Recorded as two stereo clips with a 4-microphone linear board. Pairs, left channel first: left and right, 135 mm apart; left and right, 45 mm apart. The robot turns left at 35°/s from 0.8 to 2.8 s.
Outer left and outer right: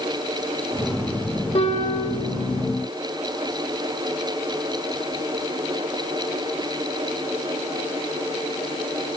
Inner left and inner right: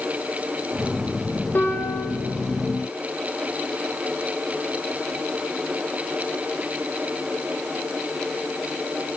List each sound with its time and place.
1.6 s a piano: 50° left (ahead or behind), 3 m; by 2.2 s 70° left (ahead or behind), 3 m